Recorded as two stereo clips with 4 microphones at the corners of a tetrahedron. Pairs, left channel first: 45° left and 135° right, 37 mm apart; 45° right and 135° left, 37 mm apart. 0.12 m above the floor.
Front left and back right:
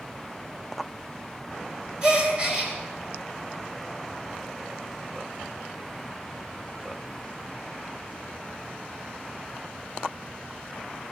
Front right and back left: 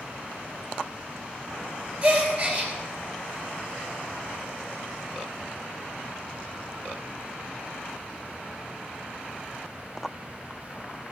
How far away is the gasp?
About 2.5 m.